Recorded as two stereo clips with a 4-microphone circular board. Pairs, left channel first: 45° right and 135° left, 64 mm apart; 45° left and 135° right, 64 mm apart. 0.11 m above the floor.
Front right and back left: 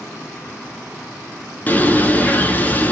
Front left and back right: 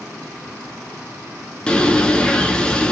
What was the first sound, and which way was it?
A bird, 20° right.